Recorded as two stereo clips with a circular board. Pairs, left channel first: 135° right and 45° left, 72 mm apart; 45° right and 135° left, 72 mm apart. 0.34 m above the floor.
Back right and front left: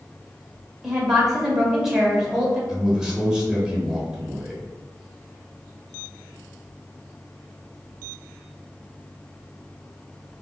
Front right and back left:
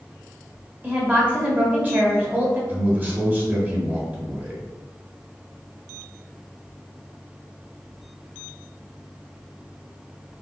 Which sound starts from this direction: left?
A man speaking, at 2.7 s.